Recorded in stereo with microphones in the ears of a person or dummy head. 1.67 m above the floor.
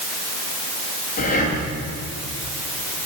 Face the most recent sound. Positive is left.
turn(degrees=50)  # may be behind; listen again after turning